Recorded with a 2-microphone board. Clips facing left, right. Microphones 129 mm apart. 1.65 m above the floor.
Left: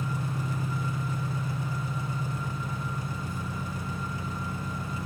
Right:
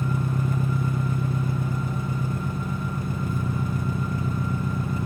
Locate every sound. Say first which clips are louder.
0.0 s an engine running: right 6 dB; 55° right (ahead or behind), 1.0 m